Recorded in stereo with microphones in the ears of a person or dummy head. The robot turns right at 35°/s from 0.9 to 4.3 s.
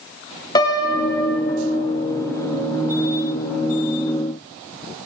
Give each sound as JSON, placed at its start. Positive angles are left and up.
{"t": 0.6, "sound": "a piano", "side_deg": 20, "distance_m": 0.9}